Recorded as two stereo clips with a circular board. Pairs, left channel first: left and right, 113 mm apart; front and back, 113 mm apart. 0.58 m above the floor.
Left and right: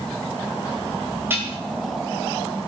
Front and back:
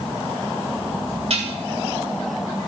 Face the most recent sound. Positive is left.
turn(degrees=-160)